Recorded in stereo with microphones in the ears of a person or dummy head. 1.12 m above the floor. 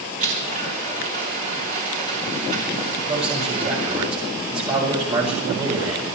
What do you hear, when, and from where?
0.2 s a blender: 45° right (ahead or behind), 3.5 m
3.1 s a man speaking: 30° right (ahead or behind), 6 m